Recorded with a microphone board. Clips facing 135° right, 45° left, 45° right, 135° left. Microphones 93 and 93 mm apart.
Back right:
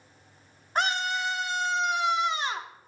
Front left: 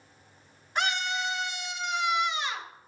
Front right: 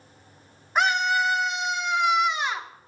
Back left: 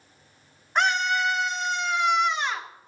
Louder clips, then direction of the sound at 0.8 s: Back right 2 dB, front right 1 dB; 130° right.